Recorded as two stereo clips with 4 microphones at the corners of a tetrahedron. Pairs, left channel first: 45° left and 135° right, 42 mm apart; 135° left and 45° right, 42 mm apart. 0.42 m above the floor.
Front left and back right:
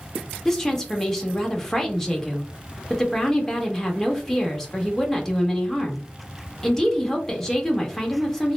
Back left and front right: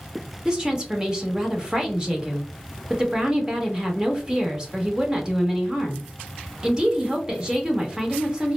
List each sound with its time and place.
0.5 s a woman speaking: 30° right, 0.7 m